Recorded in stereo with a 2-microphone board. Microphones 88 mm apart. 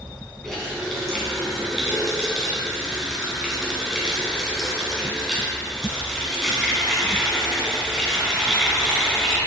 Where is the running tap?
5° left (ahead or behind), 2 m.